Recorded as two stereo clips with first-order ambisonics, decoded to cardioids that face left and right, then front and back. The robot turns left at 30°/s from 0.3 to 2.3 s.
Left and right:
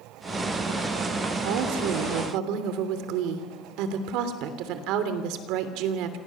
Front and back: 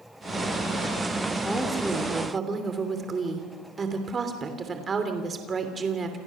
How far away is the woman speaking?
About 3 m.